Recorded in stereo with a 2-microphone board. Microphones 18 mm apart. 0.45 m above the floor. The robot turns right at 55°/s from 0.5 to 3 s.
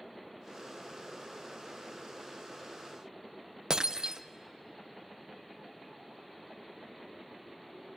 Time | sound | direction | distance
3.7 | breaking glass | 50° right (ahead or behind) | 0.8 m